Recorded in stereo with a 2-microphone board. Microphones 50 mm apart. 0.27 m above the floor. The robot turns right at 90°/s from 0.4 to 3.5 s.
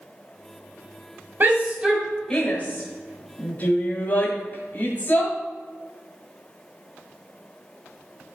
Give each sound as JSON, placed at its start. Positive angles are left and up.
{"t": 1.4, "sound": "a shout", "side_deg": -35, "distance_m": 1.9}